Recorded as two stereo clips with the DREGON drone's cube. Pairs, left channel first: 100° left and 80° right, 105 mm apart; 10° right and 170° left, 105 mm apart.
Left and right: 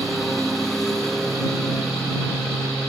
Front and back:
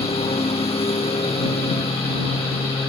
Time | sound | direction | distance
0.0 | a lawn mower | 15° left | ?